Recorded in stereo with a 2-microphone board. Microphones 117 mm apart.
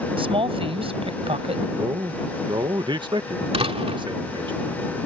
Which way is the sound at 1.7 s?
45° right (ahead or behind).